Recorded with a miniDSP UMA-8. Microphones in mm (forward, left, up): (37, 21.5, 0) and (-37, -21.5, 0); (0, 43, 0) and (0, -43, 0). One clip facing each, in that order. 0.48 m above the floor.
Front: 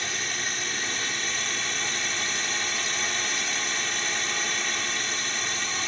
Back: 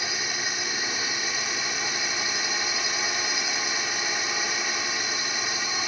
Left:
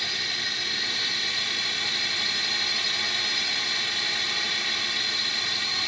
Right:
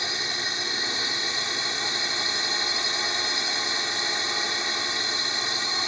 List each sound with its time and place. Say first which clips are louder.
0.0 s a drone: back 1 dB, right 3 dB; 85° right